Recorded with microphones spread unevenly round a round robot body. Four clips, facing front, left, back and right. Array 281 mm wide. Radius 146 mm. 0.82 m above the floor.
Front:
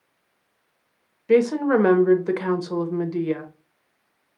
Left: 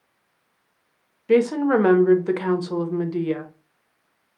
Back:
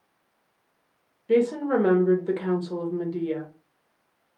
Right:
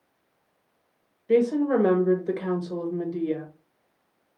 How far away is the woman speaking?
About 1.0 m.